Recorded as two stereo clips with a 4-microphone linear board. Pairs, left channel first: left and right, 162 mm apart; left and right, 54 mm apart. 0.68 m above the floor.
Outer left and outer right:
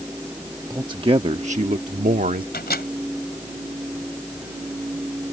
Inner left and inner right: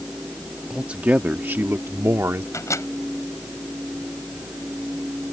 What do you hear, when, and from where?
0.7 s a man speaking: 20° right (ahead or behind); by 2.4 s 65° right (ahead or behind)
2.5 s a microwave: 80° left